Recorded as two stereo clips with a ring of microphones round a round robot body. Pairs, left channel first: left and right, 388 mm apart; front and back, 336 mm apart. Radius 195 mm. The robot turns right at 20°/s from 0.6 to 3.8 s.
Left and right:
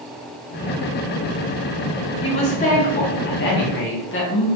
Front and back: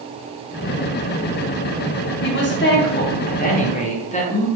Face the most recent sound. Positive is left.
turn(degrees=55)